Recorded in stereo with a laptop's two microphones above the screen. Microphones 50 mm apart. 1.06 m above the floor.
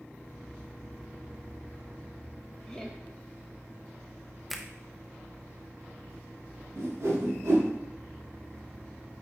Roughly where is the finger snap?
Centre.